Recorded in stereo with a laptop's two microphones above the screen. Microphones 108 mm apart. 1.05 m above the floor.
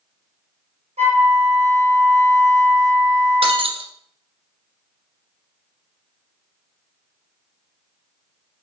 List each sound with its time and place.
1.0 s a flute: 85° right, 3.5 m
3.4 s breaking glass: 60° right (ahead or behind), 1.8 m